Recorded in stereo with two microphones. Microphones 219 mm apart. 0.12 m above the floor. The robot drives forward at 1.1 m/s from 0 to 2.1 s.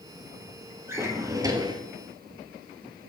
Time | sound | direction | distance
0.9 | a drawer | 10° right (ahead or behind) | 1.9 m